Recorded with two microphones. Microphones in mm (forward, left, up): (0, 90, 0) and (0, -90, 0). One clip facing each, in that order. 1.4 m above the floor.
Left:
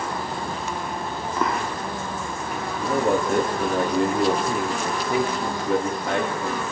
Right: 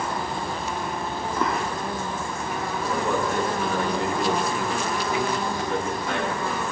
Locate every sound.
2.8 s a man speaking: 55° left (ahead or behind), 4 m